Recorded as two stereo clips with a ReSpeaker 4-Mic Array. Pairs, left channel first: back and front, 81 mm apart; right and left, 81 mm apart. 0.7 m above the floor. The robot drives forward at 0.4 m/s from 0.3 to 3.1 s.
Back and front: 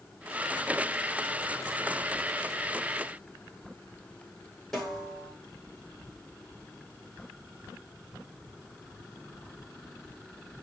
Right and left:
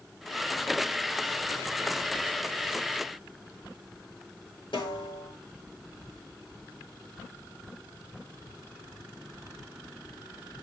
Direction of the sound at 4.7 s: 95° right.